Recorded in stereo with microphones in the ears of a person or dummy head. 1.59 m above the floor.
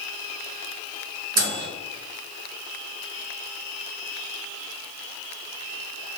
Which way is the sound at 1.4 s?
70° right (ahead or behind).